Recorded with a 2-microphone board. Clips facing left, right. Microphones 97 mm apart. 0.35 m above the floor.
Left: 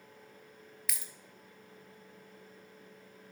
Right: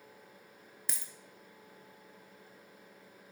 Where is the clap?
I don't hear a clap.